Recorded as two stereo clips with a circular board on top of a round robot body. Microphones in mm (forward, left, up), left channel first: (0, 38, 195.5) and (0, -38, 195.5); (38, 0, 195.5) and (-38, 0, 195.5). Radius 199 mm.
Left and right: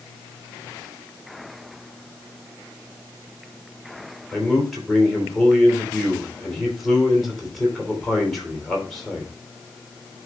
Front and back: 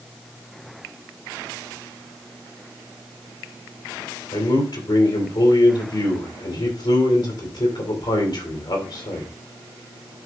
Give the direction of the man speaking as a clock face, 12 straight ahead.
12 o'clock.